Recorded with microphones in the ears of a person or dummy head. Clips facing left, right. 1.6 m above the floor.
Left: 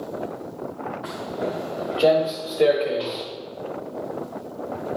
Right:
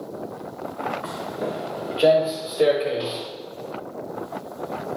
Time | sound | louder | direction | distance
1.0 | footsteps | left 1 dB | 25° right (ahead or behind) | 6.5 m